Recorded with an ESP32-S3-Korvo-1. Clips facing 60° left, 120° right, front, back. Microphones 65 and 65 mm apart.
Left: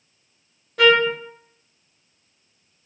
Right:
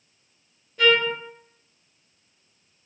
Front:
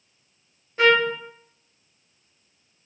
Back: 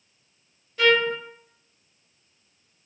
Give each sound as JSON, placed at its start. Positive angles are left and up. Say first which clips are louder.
{"t": 0.8, "sound": "a trumpet", "louder": "left 4 dB, front 2 dB", "azimuth_deg": 60, "distance_m": 0.6}